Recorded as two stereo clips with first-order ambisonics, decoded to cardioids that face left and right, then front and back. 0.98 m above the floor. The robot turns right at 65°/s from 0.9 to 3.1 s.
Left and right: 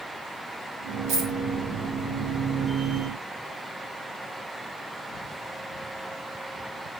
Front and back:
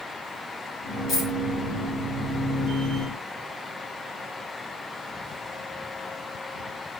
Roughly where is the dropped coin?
Ahead right.